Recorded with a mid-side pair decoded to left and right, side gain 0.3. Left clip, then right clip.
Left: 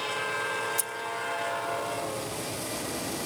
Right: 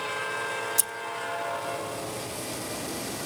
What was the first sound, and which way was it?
Scissors, 70° right.